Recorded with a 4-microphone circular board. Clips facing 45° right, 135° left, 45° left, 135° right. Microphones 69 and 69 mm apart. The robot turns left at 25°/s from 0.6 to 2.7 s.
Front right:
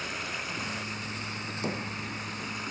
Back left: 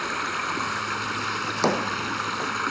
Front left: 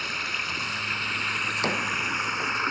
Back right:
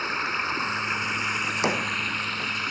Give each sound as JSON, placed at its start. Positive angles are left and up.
{"t": 0.0, "sound": "running water", "azimuth_deg": 160}
{"t": 1.4, "sound": "a drawer", "azimuth_deg": 155}